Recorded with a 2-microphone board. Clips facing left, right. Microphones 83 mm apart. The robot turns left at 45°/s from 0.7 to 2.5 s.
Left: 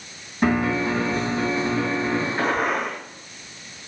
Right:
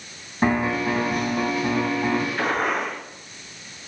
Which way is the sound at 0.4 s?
30° right.